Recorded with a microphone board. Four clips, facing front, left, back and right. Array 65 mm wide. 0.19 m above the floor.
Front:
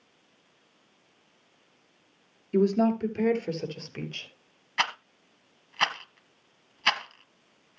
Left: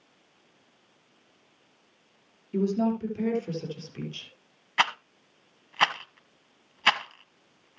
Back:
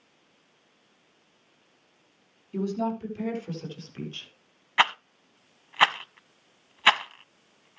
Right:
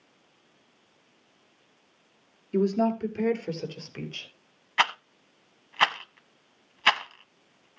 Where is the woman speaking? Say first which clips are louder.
Right 2 dB, front 6 dB; 30° right, 3.5 m.